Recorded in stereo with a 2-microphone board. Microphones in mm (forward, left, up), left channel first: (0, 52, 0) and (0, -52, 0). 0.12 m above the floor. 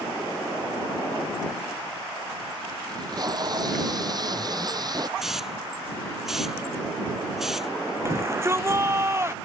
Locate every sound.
2.9 s tape being pulled: 40° right (ahead or behind)
5.2 s a hiss: 5° right (ahead or behind)
8.1 s a shout: 25° right (ahead or behind)